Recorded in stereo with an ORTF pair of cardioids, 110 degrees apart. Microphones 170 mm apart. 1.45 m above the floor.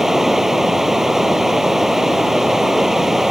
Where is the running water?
Straight ahead.